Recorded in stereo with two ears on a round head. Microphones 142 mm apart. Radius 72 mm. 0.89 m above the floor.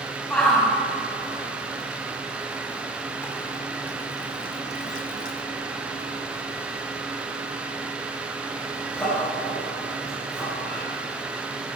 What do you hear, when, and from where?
0.3 s a shout: 5° left (ahead or behind), 5.5 m